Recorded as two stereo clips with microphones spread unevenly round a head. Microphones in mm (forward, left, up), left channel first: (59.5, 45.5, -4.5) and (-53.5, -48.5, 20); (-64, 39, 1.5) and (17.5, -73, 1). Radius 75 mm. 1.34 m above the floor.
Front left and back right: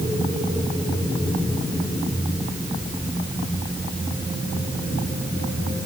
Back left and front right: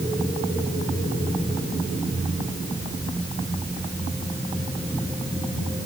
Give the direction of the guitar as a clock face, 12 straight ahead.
No guitar in this recording.